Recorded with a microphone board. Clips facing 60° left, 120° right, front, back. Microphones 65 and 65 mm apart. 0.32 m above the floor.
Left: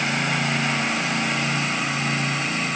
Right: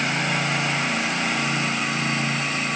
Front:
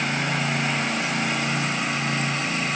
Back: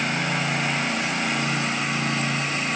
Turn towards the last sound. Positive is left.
No sound to turn to.